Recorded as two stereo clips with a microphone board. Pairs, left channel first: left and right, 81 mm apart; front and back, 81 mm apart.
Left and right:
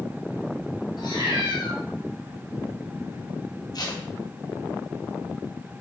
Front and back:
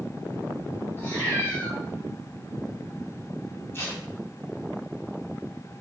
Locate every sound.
1.0 s a cat meowing: 60° left, 4 m
3.7 s tape being pulled: 60° left, 2.5 m